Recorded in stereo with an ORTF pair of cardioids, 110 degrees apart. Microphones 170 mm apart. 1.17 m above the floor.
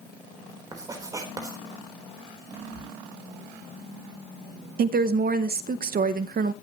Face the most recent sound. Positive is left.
turn(degrees=-55)